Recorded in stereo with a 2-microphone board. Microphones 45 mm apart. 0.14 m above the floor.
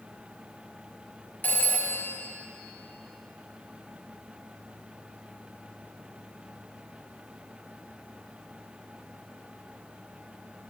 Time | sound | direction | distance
1.4 | a phone ringing | 45° left (ahead or behind) | 1.2 m